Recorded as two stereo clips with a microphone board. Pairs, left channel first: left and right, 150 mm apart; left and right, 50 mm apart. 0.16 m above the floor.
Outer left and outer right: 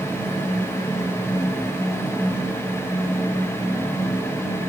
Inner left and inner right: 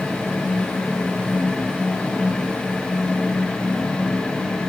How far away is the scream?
No scream in this recording.